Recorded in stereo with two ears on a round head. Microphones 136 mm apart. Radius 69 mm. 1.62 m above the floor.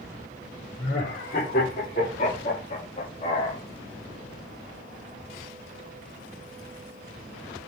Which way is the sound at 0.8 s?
55° left (ahead or behind).